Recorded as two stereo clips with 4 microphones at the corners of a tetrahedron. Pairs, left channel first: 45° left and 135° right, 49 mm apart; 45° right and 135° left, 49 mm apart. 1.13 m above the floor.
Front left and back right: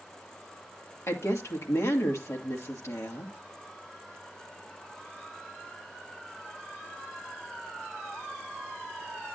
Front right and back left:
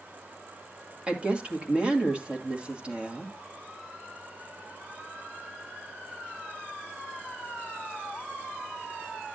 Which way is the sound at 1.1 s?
70° left.